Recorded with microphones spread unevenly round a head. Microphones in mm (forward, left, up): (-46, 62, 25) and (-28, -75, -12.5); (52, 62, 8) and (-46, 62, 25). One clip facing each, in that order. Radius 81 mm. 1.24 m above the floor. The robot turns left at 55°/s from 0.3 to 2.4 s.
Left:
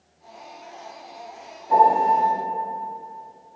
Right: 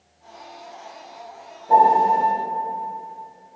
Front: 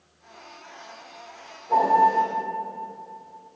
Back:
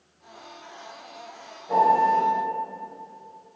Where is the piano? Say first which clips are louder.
Right 2 dB, front 1 dB; 120° right, 1.3 m; by 2.2 s 145° right, 1.3 m.